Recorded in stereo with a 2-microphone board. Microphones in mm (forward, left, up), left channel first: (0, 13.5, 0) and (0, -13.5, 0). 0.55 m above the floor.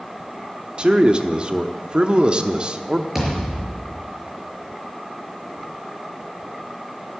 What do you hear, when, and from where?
0.8 s a man speaking: 35° right (ahead or behind), 0.9 m
3.1 s a thud: 10° right (ahead or behind), 5.5 m